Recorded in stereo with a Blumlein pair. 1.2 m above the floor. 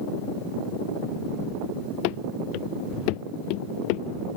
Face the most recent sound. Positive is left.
turn(degrees=45)